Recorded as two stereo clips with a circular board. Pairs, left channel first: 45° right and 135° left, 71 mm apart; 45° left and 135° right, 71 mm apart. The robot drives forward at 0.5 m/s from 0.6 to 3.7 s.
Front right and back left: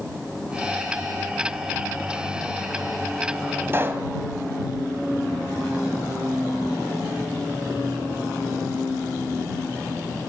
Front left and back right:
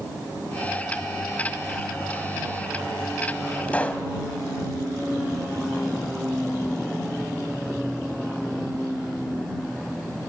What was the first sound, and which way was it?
A pop, 100° left.